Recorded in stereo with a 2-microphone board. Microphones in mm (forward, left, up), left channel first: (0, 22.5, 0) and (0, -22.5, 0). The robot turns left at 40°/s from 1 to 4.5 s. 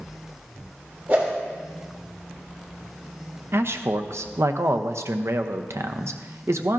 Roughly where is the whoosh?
Right.